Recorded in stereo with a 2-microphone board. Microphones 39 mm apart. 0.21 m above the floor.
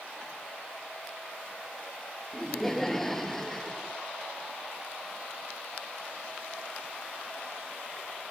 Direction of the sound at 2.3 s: 10° left (ahead or behind).